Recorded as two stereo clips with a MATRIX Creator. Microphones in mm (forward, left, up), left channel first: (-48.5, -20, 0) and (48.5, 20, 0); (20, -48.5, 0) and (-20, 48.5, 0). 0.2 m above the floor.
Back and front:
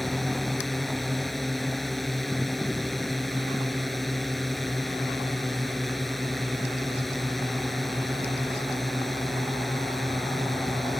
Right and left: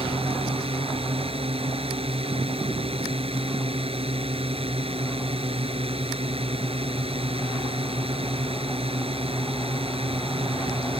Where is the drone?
115° left.